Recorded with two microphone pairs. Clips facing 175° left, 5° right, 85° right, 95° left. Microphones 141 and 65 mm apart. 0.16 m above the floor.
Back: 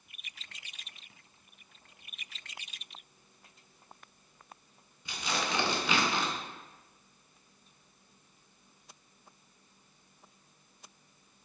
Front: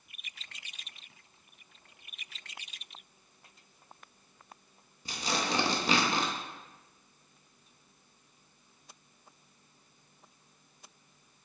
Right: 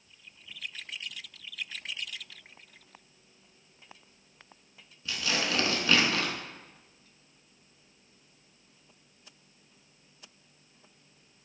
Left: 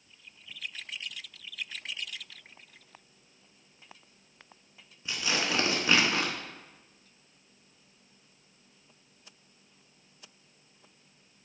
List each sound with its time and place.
5.0 s tearing paper: 30° left, 0.5 m